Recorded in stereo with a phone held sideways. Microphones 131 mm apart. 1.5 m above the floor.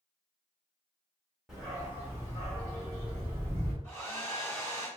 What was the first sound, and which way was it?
A dog barking, 5° right (ahead or behind).